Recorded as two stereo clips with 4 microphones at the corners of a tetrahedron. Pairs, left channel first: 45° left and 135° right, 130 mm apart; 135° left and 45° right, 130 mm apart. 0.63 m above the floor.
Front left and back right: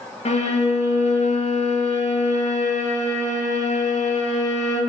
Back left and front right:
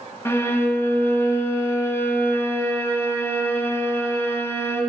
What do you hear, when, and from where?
0.2 s a violin: 65° left, 0.8 m